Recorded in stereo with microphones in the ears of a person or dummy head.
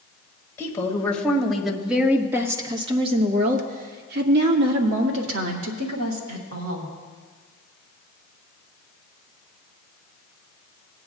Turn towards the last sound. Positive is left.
turn(degrees=-80)